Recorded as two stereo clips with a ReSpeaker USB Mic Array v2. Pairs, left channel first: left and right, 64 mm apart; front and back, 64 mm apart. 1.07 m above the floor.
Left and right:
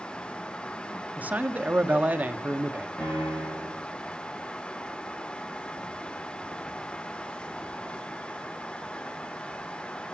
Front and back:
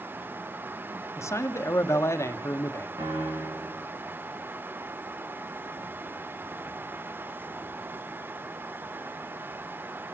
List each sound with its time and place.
1.2 s a man speaking: 30° right, 1.2 m
3.0 s a piano: 170° left, 10 m